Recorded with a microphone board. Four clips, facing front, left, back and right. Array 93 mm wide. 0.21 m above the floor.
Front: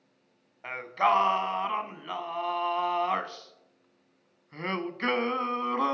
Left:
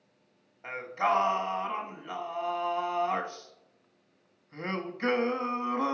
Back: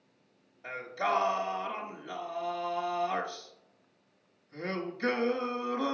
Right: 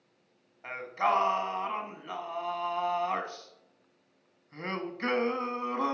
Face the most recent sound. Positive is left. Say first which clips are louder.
# even, front 6 dB
turn(degrees=0)